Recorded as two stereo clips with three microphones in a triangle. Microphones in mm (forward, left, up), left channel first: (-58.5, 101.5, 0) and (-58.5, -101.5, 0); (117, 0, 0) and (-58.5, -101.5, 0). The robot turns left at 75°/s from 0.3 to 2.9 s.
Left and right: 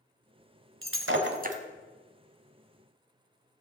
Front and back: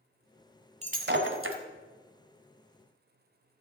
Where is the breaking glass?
90° right, 1.2 m; by 1.6 s 150° right, 1.2 m.